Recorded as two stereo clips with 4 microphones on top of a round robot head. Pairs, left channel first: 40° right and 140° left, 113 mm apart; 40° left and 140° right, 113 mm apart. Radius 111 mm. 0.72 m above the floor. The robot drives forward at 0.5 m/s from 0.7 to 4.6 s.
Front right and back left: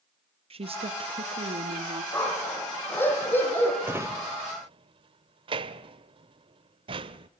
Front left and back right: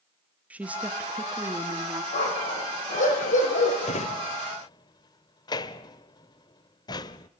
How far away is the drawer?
About 0.9 m.